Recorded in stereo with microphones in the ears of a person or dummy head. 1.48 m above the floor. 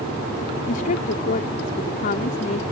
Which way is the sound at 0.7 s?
40° left (ahead or behind).